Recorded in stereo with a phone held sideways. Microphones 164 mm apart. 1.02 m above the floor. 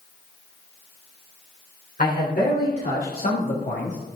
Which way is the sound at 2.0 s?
70° left (ahead or behind).